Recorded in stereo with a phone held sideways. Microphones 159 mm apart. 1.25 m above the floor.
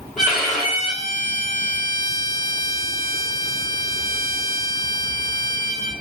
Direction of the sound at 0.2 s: 5° left (ahead or behind).